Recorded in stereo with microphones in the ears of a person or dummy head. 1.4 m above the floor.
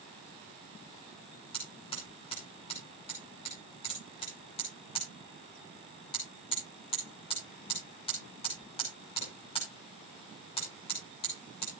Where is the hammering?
30° left (ahead or behind), 6 m.